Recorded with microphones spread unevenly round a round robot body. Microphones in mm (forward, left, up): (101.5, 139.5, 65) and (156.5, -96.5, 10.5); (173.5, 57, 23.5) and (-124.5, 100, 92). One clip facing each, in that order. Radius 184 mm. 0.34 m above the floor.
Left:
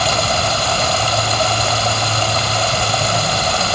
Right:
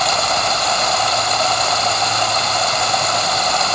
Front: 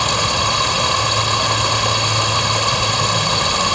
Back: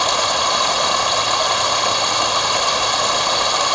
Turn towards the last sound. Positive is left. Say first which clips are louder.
# left 2 dB, even
turn(degrees=45)